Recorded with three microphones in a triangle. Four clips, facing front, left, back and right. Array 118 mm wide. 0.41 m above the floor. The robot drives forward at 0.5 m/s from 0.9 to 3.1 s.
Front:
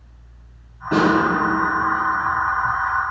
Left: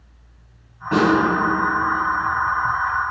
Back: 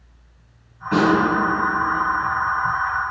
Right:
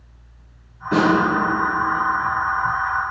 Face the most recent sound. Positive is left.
turn(degrees=80)